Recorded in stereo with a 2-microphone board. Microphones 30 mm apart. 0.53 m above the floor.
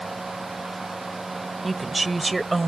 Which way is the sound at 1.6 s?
Centre (ahead or behind).